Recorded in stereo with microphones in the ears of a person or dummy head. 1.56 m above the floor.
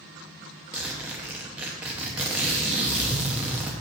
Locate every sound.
0.7 s a zipper: 15° right (ahead or behind), 0.9 m